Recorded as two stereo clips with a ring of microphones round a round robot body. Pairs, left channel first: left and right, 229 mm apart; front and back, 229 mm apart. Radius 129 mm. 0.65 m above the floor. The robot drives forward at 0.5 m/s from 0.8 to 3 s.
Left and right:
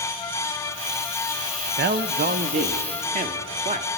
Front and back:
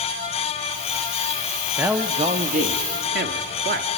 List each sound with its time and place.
1.8 s a man speaking: 100° right, 0.7 m; by 3.9 s 145° right, 1.0 m